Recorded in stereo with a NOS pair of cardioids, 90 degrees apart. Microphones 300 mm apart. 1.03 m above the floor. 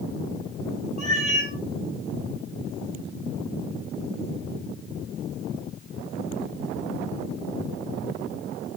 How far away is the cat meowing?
About 5 m.